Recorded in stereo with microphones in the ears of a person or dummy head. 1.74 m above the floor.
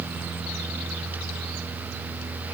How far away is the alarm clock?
I don't hear an alarm clock.